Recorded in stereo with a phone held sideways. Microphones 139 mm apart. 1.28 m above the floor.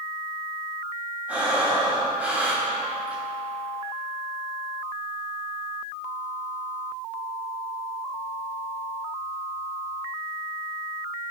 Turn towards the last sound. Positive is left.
turn(degrees=-10)  # may be behind; listen again after turning